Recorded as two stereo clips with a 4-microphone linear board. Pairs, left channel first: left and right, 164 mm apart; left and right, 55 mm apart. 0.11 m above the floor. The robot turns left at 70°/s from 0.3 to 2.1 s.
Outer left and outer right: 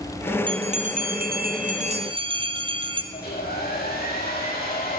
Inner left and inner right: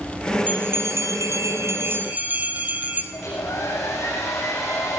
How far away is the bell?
About 1.9 m.